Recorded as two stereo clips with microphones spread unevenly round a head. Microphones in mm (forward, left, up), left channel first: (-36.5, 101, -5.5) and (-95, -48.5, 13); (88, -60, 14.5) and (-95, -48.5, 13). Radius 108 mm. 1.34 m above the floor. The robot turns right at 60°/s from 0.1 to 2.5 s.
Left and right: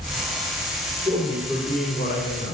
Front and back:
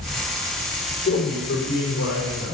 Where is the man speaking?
30° right, 3.5 m; by 2.5 s 55° left, 3.5 m.